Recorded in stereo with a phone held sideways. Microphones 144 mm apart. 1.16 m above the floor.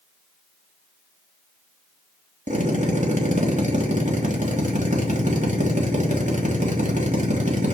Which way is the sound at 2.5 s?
60° right (ahead or behind).